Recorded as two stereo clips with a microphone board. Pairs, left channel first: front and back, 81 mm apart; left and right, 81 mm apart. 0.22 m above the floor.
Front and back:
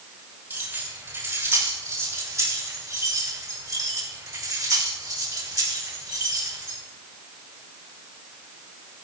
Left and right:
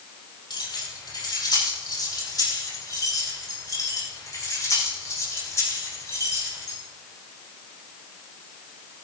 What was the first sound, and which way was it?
Keys jangling, 115° left.